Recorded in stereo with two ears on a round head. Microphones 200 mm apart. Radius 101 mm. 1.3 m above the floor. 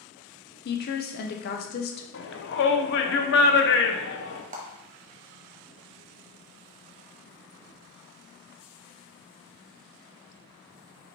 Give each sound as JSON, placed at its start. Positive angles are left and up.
{"t": 0.7, "sound": "a woman speaking", "side_deg": 45, "distance_m": 0.5}
{"t": 2.1, "sound": "a shout", "side_deg": 55, "distance_m": 0.7}
{"t": 4.5, "sound": "a clap", "side_deg": -35, "distance_m": 1.0}